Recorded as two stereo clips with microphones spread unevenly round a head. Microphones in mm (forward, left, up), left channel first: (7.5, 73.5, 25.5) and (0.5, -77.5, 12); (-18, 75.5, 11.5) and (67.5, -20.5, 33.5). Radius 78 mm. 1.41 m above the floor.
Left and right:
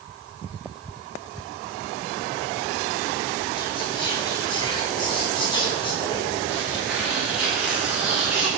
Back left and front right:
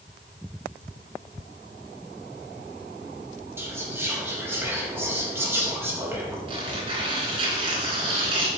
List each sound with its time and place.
3.6 s whispering: 25° left, 2.5 m
6.5 s tearing paper: 10° right, 3.5 m